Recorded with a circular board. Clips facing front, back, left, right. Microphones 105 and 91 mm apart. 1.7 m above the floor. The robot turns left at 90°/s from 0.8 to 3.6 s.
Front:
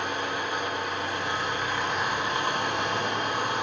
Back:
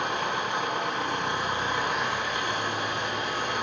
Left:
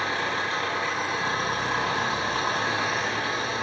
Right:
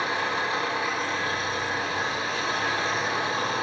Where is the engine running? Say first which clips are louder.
Back 1 dB, right 1 dB; 165° right, 9.5 m; by 3.6 s 55° right, 9.5 m.